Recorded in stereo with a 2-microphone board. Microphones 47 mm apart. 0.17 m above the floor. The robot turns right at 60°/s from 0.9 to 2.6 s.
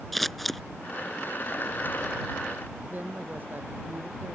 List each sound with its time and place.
0.1 s scissors: 5° left (ahead or behind)
2.9 s a woman speaking: 45° right (ahead or behind)